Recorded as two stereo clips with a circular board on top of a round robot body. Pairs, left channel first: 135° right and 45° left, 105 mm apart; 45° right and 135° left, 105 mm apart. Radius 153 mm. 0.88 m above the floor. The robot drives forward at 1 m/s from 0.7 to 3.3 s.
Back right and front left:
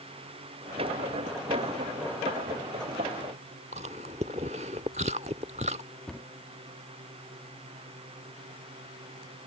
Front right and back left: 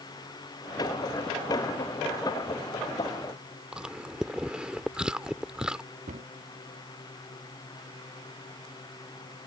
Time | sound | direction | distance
3.7 | chewing | 55° left | ?
6.1 | a cupboard door | 140° left | ?